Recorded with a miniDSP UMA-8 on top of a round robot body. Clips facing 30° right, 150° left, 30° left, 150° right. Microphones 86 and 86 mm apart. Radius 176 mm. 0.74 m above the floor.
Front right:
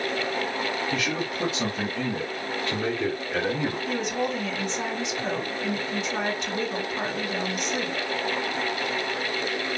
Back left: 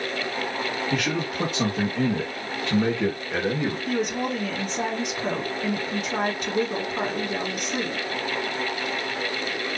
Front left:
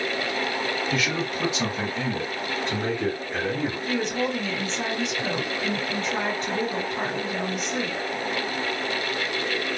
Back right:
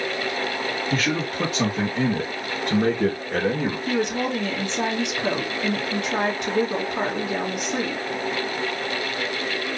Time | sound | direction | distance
0.9 | a man speaking | 170° left | 1.7 m
3.9 | a woman speaking | 170° right | 2.5 m